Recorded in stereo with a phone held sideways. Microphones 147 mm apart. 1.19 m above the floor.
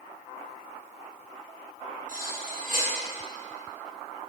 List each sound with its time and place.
2.1 s cutlery clinking: 65° right (ahead or behind), 5 m